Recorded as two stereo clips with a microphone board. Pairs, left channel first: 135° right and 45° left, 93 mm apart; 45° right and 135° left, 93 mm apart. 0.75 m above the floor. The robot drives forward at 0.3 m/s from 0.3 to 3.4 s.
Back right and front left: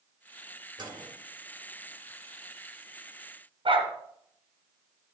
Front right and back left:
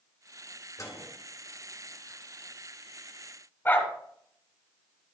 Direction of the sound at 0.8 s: 5° left.